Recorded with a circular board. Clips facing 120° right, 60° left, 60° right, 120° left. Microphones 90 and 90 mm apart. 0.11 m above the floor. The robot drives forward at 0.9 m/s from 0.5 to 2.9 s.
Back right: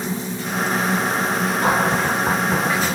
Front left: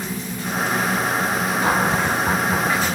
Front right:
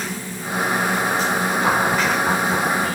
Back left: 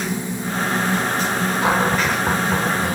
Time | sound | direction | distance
1.6 | a cupboard door | 165° right | 4.5 m